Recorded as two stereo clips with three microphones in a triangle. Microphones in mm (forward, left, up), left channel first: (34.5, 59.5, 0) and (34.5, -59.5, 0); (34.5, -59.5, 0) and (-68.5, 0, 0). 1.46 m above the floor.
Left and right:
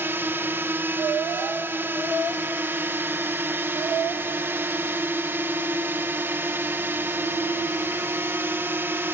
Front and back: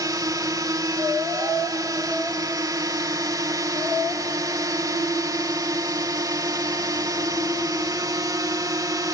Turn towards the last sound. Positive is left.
turn(degrees=-155)